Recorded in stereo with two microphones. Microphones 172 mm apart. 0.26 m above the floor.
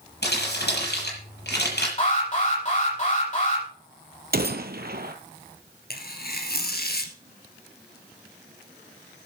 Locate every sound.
0.2 s crumpling: 75° left (ahead or behind), 7 m
2.0 s an alarm: 40° left (ahead or behind), 7 m
4.3 s a gunshot: 65° right (ahead or behind), 1.1 m
5.9 s tearing paper: 65° left (ahead or behind), 1.8 m